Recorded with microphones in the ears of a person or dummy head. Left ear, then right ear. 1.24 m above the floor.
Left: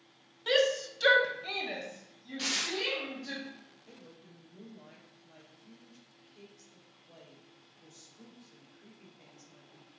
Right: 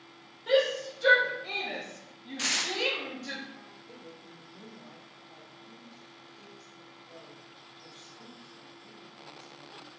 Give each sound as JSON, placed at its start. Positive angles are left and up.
{"t": 0.5, "sound": "a shout", "side_deg": 50, "distance_m": 0.8}
{"t": 2.4, "sound": "tearing paper", "side_deg": -20, "distance_m": 0.5}
{"t": 3.9, "sound": "a woman speaking", "side_deg": 80, "distance_m": 1.2}